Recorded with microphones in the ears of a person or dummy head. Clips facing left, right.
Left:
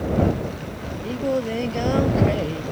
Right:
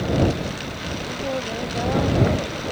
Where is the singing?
30° left (ahead or behind).